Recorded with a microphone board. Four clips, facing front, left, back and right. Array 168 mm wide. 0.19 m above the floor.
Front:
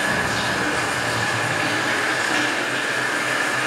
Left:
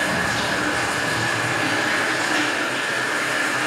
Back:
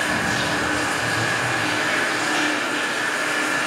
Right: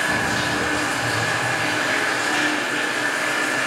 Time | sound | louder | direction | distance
0.0 | running water | even, even | 35° left | 1.5 m